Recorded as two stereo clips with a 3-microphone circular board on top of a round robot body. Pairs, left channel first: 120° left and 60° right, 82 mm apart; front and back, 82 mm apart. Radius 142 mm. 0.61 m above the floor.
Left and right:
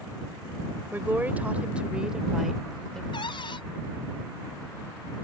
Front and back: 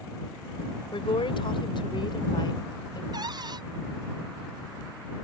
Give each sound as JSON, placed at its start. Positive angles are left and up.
{"t": 0.9, "sound": "a woman speaking", "azimuth_deg": 5}
{"t": 3.1, "sound": "a cupboard door", "azimuth_deg": 145}